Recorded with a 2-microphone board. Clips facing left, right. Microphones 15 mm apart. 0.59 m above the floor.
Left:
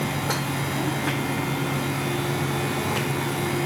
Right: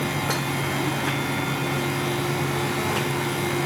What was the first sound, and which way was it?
Only background noise.